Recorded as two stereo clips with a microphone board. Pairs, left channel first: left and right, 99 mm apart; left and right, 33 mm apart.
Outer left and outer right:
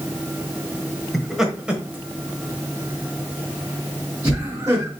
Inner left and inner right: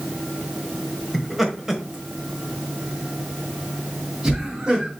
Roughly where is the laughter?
Centre.